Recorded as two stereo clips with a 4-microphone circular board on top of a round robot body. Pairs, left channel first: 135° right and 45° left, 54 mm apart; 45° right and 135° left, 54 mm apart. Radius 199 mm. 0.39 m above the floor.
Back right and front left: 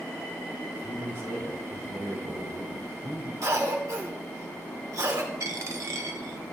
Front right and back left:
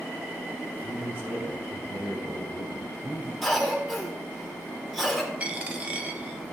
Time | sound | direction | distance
0.7 | a man speaking | 90° left | 6.5 m
3.4 | a cough | 45° left | 4.5 m
5.4 | a dropped coin | 70° left | 1.1 m